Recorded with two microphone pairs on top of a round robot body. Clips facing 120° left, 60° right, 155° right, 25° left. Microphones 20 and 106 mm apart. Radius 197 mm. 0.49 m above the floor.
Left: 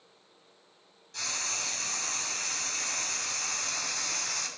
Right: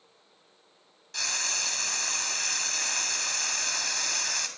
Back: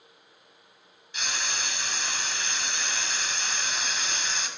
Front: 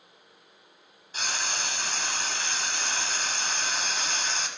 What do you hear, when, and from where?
1.1 s frying: 15° right, 3 m